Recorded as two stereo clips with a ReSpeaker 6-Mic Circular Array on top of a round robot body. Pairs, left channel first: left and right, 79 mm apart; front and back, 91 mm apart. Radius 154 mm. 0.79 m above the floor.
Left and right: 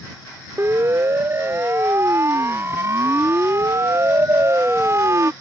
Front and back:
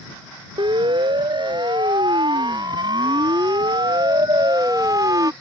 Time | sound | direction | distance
0.6 | a siren | 150° right | ?